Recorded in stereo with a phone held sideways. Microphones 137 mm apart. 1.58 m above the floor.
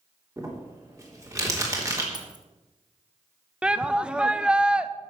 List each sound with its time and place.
0.4 s crumpling: 25° right (ahead or behind), 3.5 m
2.1 s keys jangling: 35° right (ahead or behind), 1.4 m
3.6 s a shout: 10° right (ahead or behind), 0.7 m